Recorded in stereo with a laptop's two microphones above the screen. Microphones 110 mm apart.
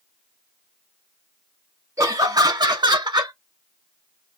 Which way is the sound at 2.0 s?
30° right (ahead or behind).